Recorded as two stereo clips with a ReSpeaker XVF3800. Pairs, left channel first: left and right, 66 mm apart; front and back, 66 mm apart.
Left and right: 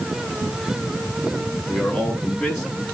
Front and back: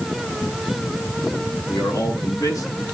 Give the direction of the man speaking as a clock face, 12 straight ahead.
12 o'clock.